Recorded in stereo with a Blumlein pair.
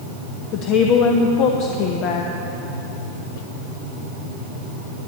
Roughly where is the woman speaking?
Ahead left.